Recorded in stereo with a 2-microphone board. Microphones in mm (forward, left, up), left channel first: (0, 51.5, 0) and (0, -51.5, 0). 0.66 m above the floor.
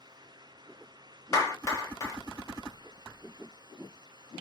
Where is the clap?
30° left (ahead or behind), 0.9 m.